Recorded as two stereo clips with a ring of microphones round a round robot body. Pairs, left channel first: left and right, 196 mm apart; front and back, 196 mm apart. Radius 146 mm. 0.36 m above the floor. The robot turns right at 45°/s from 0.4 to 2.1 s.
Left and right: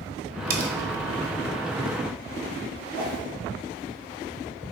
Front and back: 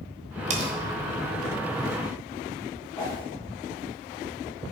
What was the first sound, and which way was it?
Cutlery clinking, 130° right.